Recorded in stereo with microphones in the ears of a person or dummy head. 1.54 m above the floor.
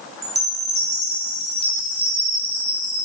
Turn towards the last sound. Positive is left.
turn(degrees=-30)  # may be behind; listen again after turning